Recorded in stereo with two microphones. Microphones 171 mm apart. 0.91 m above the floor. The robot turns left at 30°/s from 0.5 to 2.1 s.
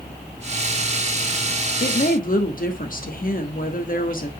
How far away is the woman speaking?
About 1.4 m.